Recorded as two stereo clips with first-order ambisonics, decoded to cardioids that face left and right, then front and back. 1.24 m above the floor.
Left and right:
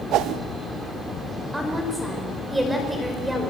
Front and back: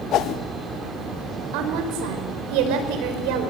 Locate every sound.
0.1 s a whoosh: 50° right, 0.9 m
1.5 s a woman speaking: 175° right, 5 m